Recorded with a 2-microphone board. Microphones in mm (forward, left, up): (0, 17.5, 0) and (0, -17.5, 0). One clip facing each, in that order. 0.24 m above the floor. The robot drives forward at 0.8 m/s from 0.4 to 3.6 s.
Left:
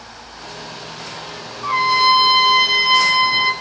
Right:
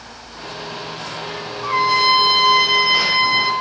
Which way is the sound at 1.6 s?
5° left (ahead or behind).